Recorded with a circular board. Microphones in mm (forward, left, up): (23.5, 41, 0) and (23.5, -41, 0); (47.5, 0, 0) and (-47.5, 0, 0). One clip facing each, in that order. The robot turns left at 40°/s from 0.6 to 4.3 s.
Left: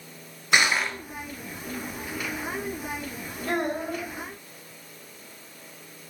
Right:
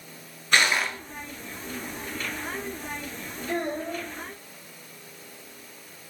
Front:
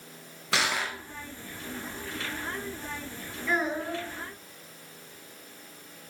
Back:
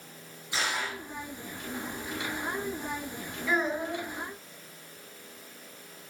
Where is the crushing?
10° left, 2.0 m; by 1.0 s 5° right, 2.0 m.